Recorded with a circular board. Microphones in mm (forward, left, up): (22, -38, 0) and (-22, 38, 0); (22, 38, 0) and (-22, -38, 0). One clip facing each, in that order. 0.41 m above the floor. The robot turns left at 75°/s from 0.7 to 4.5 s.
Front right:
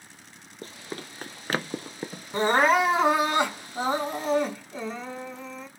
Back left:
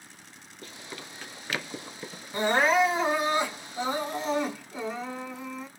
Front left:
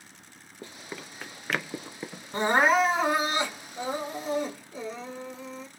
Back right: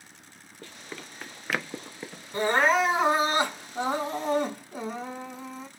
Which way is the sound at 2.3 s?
5° left.